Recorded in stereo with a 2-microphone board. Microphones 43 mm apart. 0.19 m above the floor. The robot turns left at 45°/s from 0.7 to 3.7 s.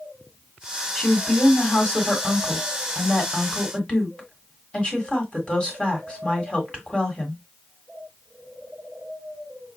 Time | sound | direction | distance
0.9 | a woman speaking | centre (ahead or behind) | 1.7 m